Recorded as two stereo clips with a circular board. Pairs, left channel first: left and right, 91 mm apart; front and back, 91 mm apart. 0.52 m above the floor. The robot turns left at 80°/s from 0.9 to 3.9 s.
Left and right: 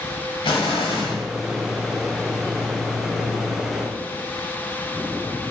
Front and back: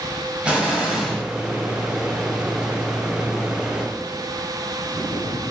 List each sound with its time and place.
0.4 s an explosion: 105° left, 1.1 m; by 1.2 s 75° left, 1.1 m